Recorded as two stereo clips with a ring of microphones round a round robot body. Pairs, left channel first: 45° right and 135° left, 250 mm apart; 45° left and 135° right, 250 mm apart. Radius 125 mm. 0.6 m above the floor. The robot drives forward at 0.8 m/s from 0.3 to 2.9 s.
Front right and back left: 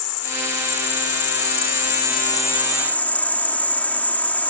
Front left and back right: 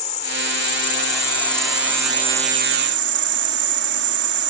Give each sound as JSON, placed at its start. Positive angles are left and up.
{"t": 0.0, "sound": "an insect", "azimuth_deg": -20}